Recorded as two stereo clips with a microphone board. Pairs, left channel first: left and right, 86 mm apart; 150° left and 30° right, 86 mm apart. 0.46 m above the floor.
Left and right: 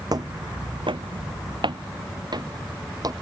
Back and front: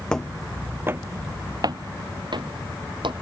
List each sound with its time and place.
0.1 s footsteps: 130° right; by 3.1 s 45° right